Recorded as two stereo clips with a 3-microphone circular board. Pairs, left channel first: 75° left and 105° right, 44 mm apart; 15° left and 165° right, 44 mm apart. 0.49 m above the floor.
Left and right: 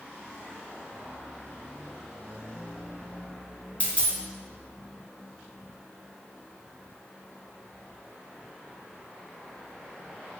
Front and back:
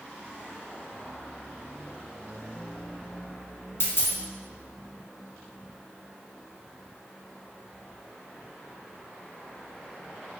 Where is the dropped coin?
15° left, 0.7 m.